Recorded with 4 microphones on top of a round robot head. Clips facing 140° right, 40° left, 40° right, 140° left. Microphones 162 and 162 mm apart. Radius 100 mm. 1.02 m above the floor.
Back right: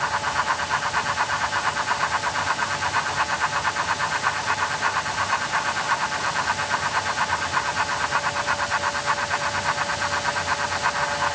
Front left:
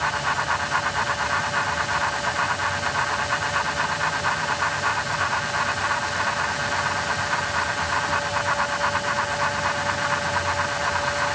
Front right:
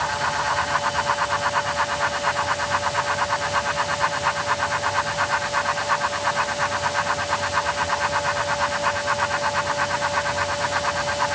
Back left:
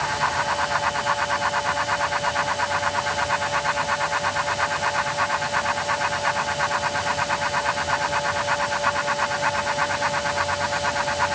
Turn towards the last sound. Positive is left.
No sound to turn to.